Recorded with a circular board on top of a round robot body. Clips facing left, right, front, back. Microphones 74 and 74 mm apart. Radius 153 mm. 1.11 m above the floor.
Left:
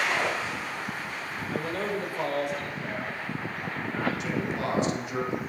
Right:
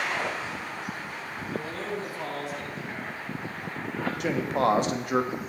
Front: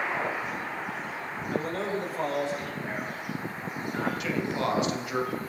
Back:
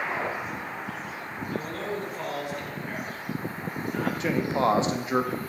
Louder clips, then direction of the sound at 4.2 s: Right 5 dB, back 4 dB; 120° right.